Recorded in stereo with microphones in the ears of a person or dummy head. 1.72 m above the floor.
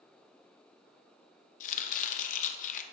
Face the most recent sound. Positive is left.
turn(degrees=55)  # may be behind; listen again after turning